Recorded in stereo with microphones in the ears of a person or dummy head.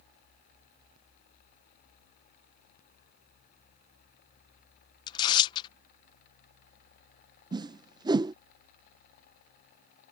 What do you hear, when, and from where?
5.1 s tearing paper: 25° left (ahead or behind)
7.5 s a whoosh: 20° right (ahead or behind)